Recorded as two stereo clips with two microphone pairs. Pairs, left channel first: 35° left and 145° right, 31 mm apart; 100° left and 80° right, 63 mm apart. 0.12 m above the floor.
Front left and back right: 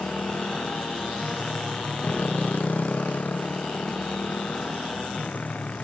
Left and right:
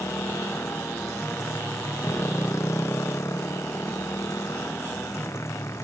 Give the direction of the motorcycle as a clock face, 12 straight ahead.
10 o'clock.